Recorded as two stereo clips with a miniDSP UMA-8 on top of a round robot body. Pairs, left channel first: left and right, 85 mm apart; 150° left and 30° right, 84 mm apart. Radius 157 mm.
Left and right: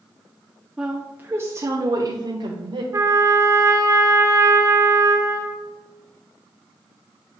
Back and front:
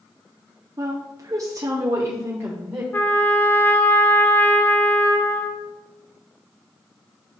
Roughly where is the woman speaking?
Ahead.